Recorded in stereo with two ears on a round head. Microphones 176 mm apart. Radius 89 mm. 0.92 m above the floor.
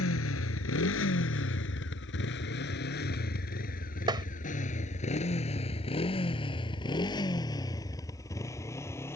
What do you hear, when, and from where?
0.0 s a motorcycle: 85° left; by 9.2 s 15° left (ahead or behind)
4.1 s tapping: 25° right (ahead or behind)